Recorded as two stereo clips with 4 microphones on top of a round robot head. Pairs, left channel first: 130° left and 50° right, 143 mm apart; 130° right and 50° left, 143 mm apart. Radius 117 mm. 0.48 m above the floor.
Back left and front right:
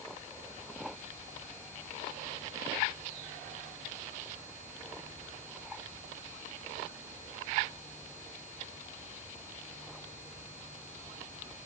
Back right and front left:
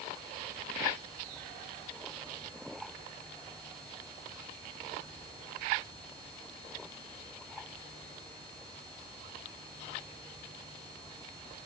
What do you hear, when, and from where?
Only background noise.